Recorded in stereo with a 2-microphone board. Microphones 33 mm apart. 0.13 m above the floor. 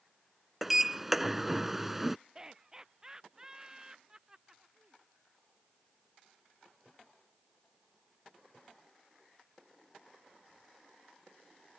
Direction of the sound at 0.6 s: 10° right (ahead or behind).